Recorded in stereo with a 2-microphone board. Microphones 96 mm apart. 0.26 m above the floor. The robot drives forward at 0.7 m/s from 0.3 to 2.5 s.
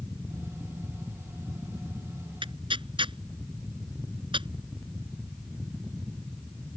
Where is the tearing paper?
65° right (ahead or behind).